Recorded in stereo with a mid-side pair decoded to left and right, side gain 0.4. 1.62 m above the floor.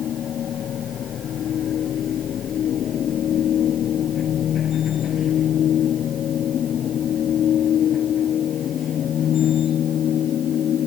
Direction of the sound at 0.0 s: 65° left.